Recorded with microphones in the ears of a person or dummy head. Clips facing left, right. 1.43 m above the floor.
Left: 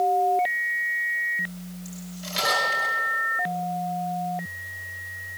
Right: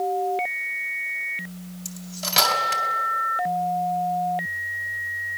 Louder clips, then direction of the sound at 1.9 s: Right 2 dB; 70° right (ahead or behind).